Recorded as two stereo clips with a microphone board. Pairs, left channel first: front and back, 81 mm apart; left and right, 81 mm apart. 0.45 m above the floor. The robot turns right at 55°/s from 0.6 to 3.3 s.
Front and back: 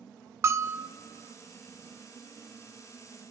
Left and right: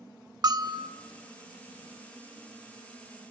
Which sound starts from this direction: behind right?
A bell, at 0.4 s.